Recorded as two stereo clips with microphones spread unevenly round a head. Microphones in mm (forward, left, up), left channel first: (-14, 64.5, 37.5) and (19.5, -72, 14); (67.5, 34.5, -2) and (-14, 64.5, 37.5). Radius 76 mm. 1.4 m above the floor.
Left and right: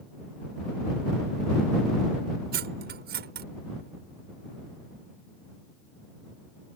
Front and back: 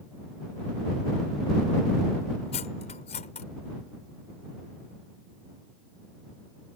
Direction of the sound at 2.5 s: 55° right.